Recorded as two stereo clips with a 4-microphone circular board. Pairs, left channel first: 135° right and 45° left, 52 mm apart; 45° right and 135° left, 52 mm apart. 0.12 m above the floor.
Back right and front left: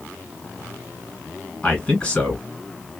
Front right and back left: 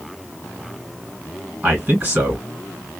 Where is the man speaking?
170° left, 2 m.